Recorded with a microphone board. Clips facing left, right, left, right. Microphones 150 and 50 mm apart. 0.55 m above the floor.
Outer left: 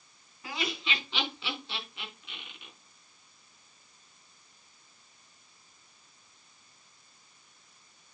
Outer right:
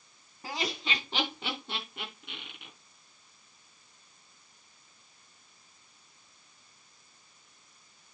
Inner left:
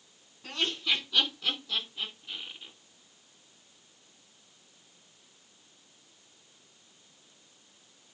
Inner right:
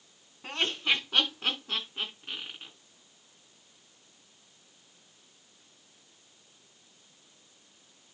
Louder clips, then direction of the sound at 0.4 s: Outer right 1 dB, inner right 2 dB; 35° right (ahead or behind).